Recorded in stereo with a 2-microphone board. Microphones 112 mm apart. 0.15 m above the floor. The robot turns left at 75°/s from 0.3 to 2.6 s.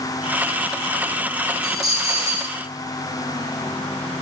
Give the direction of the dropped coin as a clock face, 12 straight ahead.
8 o'clock.